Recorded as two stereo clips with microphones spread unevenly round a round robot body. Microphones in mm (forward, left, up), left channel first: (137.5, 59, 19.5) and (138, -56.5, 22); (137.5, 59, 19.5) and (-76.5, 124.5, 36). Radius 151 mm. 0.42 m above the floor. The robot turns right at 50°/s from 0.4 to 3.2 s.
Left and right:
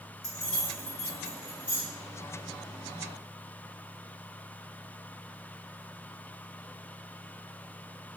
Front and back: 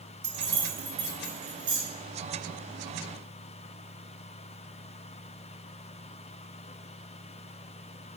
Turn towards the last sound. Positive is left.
turn(degrees=-115)